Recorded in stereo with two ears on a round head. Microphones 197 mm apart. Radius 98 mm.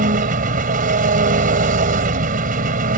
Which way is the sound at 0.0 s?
40° right (ahead or behind).